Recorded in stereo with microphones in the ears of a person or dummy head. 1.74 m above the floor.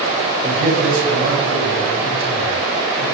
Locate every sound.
0.4 s a man speaking: 80° right, 4.5 m